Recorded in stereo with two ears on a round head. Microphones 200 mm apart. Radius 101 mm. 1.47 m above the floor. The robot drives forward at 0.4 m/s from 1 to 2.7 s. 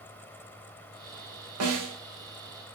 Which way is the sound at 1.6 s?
70° right (ahead or behind).